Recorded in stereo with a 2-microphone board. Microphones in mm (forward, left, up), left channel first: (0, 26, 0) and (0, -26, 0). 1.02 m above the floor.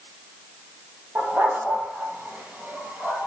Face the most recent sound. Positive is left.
turn(degrees=-35)  # may be behind; listen again after turning